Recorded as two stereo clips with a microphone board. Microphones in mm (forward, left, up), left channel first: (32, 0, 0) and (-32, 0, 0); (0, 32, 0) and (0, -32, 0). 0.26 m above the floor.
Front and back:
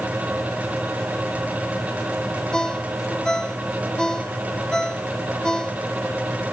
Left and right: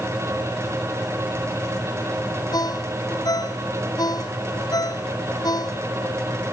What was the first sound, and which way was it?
A ringtone, 80° left.